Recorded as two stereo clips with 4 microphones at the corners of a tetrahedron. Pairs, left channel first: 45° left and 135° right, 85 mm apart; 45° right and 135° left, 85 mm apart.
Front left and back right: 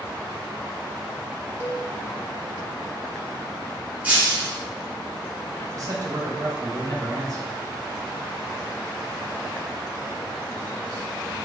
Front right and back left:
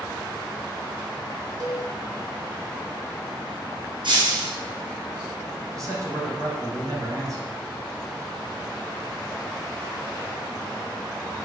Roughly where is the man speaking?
Behind.